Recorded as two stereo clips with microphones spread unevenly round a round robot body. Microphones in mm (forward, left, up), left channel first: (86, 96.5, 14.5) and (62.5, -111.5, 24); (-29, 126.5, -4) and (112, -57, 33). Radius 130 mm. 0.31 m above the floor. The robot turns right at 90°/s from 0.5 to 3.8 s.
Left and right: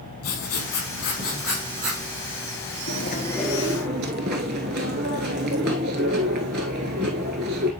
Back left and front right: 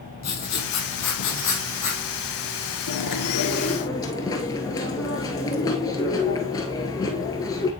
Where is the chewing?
125° left, 0.7 m; by 7.7 s 150° right, 0.7 m.